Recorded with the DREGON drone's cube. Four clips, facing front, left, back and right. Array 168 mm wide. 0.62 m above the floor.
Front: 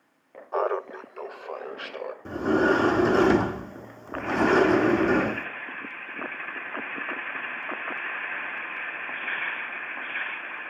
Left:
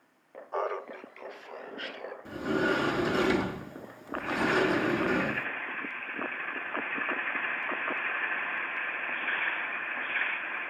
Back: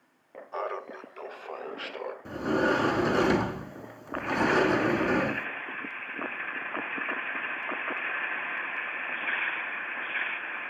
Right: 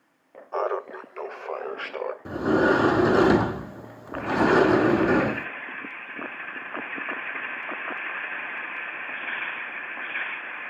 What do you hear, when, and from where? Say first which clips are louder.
0.5 s laughter: right 5 dB, front 8 dB; 20° right, 0.6 m; by 2.1 s 90° right, 1.7 m
2.2 s a sliding door: right 8 dB, front 4 dB; 70° right, 0.5 m